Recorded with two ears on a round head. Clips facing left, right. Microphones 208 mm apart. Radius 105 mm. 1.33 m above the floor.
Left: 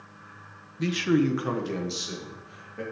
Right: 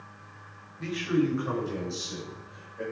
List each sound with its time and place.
0.8 s a man speaking: 45° left (ahead or behind), 0.7 m; by 2.8 s 80° left, 2.5 m